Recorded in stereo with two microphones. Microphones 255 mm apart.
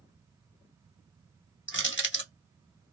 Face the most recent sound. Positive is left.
turn(degrees=50)  # may be behind; listen again after turning